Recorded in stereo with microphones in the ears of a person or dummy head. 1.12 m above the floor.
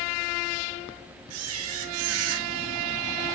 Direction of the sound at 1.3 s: 80° right.